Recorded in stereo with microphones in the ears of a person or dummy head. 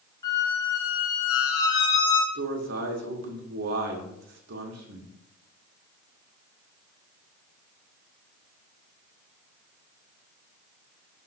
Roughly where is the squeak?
Left.